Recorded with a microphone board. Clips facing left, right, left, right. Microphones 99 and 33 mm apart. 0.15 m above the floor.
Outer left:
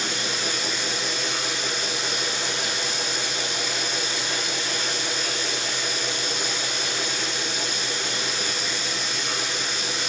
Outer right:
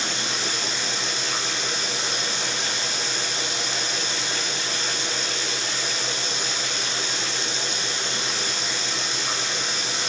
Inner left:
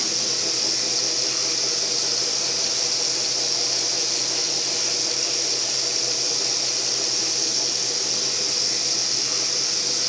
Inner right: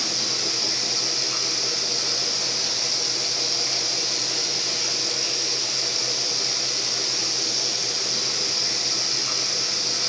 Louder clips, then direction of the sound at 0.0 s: Even, even; 30° right (ahead or behind).